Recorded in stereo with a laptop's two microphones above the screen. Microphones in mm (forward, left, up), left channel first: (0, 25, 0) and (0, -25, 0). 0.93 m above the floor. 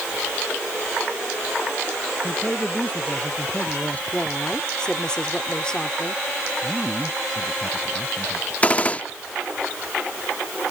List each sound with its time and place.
2.2 s a man speaking: 30° left (ahead or behind)
4.1 s a woman speaking: 20° left (ahead or behind)
6.6 s a man speaking: 5° left (ahead or behind)
8.6 s a gunshot: 25° left (ahead or behind)